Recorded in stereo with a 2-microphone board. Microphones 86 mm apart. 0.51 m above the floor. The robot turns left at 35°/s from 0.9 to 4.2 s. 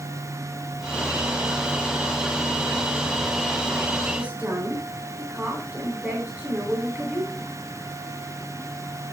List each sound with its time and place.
4.1 s a woman speaking: 15° right (ahead or behind), 9.5 m; by 7.6 s 20° right (ahead or behind), 9.5 m